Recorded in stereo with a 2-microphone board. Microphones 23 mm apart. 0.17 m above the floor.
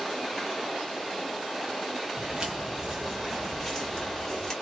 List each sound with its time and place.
2.2 s footsteps: 40° right (ahead or behind), 1.1 m; by 4.5 s 25° left (ahead or behind), 1.4 m